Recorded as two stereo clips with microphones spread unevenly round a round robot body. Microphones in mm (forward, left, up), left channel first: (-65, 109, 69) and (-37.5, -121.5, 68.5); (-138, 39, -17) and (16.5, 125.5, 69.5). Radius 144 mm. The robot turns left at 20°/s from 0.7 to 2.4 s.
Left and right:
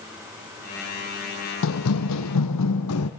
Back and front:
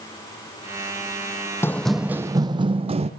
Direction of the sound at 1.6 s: 115° left.